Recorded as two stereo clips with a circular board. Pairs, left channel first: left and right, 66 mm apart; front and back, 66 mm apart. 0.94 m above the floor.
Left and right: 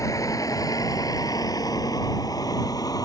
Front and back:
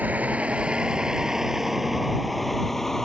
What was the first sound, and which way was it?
A vehicle, 115° left.